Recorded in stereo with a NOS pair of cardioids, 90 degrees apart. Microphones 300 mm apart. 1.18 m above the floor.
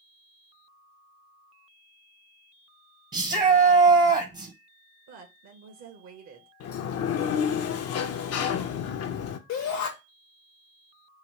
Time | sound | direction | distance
3.1 | a shout | 30° right | 0.6 m
5.1 | a woman speaking | 65° right | 0.9 m
6.6 | a sliding door | 60° left | 0.5 m
9.5 | a shout | 65° left | 0.7 m